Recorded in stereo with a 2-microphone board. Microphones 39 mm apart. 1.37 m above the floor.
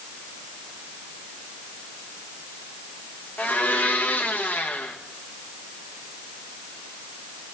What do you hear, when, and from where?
3.4 s a blender: 55° left (ahead or behind), 1.6 m